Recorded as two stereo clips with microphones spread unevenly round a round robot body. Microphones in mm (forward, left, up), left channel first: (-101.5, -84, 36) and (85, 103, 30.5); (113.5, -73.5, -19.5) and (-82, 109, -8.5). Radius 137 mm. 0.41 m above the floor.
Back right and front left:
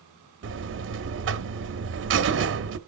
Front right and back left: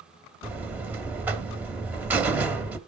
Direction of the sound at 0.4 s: 55° left.